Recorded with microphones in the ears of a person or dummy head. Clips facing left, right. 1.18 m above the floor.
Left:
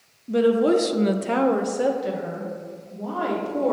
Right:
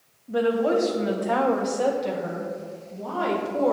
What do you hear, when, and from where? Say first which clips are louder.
0.3 s a woman speaking: left 4 dB; 35° left (ahead or behind), 0.7 m; by 3.7 s 5° right (ahead or behind), 2.5 m